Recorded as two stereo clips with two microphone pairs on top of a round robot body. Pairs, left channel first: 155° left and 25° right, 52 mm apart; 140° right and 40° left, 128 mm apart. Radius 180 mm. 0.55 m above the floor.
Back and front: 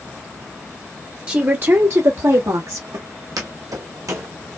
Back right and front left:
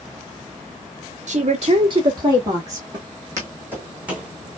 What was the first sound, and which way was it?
A woman speaking, 30° left.